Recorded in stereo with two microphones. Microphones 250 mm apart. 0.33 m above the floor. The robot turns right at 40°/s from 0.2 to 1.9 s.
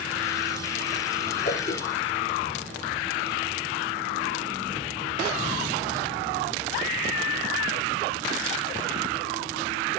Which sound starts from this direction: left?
A whoosh, at 1.4 s.